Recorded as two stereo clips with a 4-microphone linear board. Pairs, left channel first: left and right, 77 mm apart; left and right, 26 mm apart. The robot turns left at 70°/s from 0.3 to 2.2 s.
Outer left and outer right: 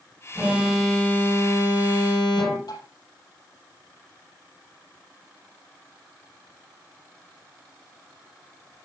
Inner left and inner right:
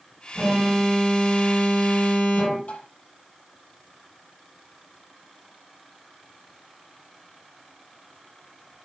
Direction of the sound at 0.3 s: 150° right.